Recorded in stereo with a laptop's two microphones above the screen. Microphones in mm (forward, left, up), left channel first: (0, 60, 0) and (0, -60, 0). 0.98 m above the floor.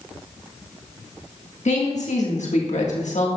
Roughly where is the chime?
I don't hear a chime.